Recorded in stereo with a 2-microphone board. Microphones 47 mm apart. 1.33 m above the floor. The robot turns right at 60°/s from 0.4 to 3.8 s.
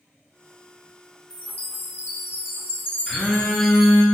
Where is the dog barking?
I don't hear a dog barking.